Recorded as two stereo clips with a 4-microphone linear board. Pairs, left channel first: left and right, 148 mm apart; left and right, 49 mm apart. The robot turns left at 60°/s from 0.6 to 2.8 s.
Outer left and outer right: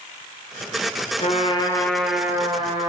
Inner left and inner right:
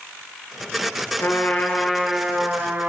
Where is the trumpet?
50° left, 5 m; by 2.9 s 45° right, 5 m.